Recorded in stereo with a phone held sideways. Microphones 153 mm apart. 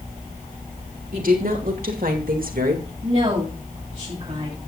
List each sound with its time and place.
1.1 s a woman speaking: 75° right (ahead or behind), 3.5 m
3.0 s a woman speaking: 50° right (ahead or behind), 7.5 m